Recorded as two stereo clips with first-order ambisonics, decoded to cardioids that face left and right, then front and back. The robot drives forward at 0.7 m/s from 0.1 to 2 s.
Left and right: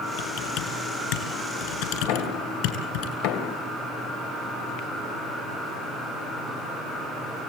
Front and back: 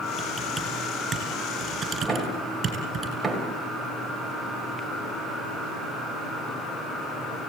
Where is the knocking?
95° left, 3 m.